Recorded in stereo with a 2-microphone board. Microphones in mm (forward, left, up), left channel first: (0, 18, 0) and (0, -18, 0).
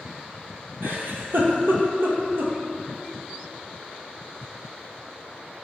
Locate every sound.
0.8 s a giggle: 85° right, 0.8 m